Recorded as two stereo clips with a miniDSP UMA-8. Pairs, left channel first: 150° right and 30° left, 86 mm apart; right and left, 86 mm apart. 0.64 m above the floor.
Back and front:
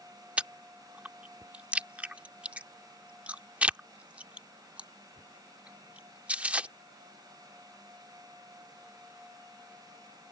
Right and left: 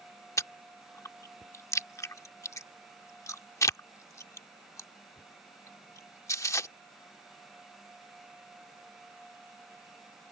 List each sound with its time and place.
0.4 s chewing: 40° right